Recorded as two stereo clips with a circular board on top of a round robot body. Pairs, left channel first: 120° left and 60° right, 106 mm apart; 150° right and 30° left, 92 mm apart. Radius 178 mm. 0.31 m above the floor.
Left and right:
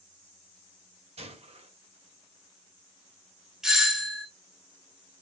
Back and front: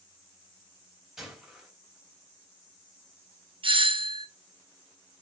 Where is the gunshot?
55° right, 3.5 m.